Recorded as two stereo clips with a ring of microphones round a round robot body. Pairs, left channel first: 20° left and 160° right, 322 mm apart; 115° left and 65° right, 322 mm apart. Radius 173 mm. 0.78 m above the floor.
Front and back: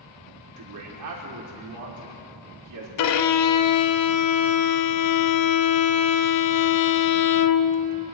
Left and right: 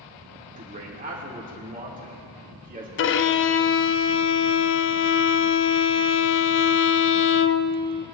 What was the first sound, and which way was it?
A man speaking, 130° right.